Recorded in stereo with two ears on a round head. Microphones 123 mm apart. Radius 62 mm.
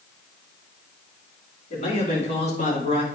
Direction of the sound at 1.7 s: 50° left (ahead or behind).